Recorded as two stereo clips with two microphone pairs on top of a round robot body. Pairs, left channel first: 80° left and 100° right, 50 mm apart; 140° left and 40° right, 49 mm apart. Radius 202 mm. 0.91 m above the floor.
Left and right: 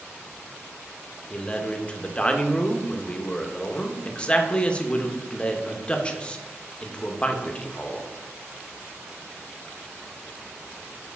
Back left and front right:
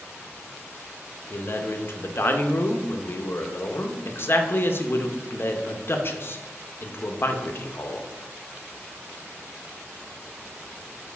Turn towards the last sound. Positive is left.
turn(degrees=150)